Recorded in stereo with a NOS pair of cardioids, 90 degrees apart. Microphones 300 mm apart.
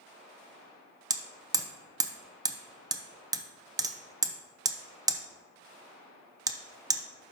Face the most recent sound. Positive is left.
turn(degrees=-15)